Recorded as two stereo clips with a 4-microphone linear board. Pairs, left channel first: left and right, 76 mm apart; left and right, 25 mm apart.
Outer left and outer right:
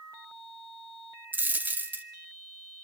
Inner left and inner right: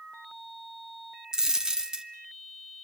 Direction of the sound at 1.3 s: 25° right (ahead or behind).